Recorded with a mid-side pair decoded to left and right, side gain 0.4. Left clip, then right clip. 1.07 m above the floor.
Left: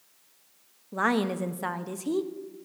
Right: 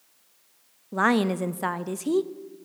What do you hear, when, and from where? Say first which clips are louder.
0.9 s a woman speaking: right 3 dB; 30° right, 0.7 m